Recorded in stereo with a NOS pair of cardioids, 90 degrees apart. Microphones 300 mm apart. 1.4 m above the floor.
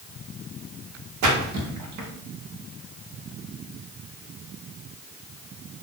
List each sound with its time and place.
1.2 s a splash: 65° right, 1.0 m